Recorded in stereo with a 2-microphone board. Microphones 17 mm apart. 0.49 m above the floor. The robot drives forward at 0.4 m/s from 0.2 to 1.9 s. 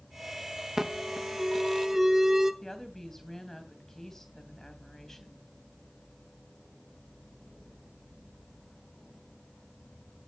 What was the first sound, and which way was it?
An alarm, 20° right (ahead or behind).